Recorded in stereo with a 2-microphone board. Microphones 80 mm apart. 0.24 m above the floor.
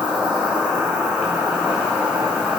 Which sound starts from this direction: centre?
An insect, at 0.0 s.